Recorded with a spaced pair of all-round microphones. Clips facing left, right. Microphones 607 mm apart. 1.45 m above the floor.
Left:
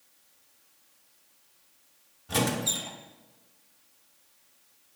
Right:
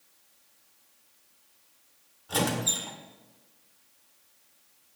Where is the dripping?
I don't hear dripping.